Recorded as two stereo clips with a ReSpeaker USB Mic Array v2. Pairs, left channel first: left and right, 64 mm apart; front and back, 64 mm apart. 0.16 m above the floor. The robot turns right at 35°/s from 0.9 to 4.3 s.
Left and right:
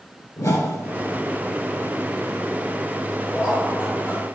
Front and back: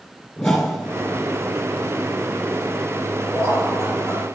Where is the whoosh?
85° left, 2.5 m.